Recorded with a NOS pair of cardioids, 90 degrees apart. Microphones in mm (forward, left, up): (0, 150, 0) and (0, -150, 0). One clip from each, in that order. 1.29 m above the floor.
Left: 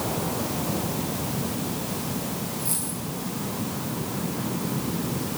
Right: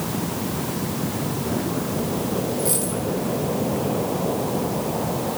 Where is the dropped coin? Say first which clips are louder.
Right 8 dB; 30° right, 4 m.